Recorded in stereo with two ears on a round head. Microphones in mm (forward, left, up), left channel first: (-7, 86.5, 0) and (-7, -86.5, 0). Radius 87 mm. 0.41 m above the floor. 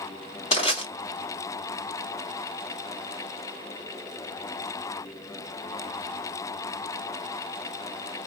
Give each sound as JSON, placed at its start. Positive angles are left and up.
{"t": 0.5, "sound": "crushing", "side_deg": 40, "distance_m": 2.0}